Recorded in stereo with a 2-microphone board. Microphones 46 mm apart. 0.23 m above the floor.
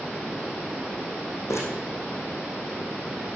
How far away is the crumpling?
About 5 m.